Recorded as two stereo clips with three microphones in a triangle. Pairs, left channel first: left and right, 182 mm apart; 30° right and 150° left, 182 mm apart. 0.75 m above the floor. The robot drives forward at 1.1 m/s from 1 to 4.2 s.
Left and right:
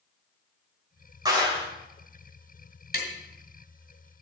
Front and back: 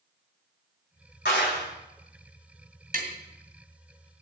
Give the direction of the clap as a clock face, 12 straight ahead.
1 o'clock.